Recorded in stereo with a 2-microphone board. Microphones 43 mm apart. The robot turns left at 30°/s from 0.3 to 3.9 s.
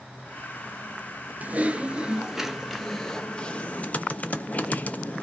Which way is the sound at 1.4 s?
140° right.